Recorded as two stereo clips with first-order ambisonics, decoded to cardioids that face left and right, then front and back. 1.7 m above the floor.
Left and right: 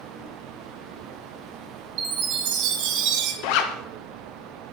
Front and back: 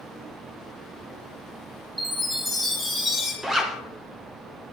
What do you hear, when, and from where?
2.0 s a chime: 95° right, 1.9 m
3.4 s a zipper: 100° left, 1.0 m